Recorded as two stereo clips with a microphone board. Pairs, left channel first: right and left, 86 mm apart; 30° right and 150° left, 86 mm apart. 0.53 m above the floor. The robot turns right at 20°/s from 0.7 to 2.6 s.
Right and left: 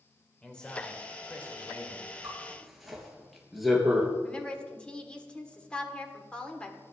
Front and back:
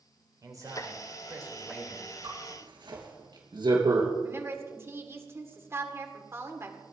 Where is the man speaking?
170° right, 2 m; by 2.1 s 140° right, 2 m.